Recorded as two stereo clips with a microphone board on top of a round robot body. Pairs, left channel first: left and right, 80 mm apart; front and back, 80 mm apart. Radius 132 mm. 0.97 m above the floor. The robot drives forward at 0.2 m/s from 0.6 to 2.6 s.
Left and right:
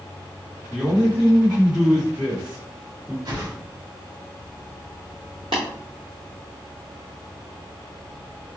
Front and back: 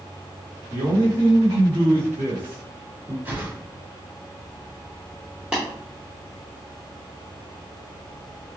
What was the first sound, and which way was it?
A man speaking, 170° right.